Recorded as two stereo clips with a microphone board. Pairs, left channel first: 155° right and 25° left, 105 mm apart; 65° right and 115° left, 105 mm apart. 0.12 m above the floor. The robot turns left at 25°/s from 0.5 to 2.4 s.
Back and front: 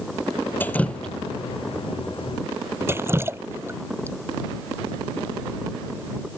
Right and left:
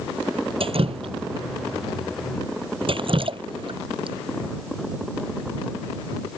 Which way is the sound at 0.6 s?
130° left.